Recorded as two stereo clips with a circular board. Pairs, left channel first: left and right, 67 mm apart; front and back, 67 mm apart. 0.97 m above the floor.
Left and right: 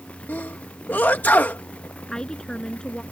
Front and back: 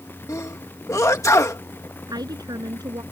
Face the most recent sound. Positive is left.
turn(degrees=170)